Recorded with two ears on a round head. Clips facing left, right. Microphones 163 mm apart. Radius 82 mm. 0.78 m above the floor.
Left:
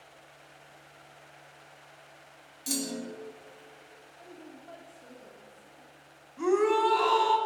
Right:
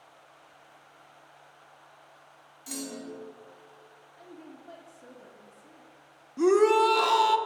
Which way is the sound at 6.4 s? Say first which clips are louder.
Right 4 dB; 50° right (ahead or behind).